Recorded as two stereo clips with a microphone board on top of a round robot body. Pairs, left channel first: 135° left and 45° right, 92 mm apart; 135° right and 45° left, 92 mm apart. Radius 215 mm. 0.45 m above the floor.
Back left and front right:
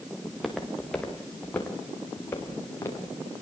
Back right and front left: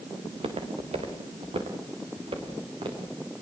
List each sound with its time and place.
0.2 s footsteps: 45° left, 4 m; by 3.2 s 75° left, 7.5 m